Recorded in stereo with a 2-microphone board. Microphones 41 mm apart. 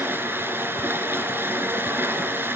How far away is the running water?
About 2.0 m.